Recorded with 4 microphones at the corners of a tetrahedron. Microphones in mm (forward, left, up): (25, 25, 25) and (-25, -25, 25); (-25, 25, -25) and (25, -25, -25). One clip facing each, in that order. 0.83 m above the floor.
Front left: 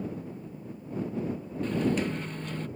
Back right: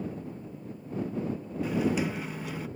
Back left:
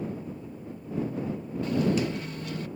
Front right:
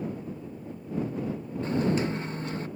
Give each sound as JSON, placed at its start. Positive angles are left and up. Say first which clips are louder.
{"t": 1.6, "sound": "a microwave", "louder": "even, even", "azimuth_deg": -60}